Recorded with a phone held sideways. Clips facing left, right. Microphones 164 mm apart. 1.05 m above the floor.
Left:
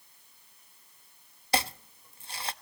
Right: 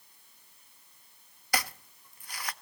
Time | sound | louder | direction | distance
1.5 | chopping | left 4 dB | 25° left (ahead or behind) | 0.6 m